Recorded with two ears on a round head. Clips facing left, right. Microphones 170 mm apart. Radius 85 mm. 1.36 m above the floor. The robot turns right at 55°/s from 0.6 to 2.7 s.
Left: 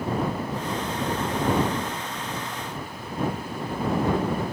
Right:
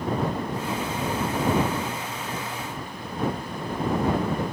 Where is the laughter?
I don't hear laughter.